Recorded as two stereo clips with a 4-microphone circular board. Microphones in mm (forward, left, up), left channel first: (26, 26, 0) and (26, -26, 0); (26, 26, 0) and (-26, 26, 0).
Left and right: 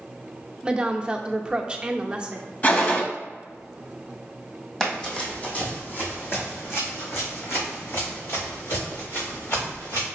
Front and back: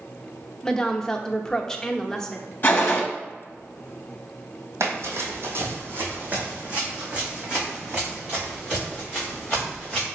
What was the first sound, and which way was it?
A woman speaking, 50° right.